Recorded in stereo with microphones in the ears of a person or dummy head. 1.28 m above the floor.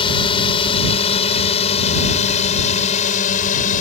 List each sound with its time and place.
0.0 s a drone: 30° left (ahead or behind); by 3.8 s 45° left (ahead or behind)